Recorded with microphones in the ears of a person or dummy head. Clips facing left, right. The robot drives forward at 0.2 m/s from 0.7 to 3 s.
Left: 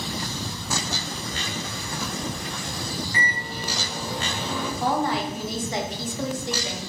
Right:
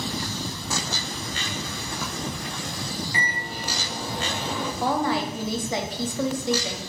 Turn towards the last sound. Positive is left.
turn(degrees=-60)  # may be behind; listen again after turning